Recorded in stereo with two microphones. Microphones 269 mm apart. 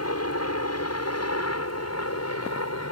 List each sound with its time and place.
0.0 s a helicopter: 65° left (ahead or behind); by 2.9 s 70° left (ahead or behind)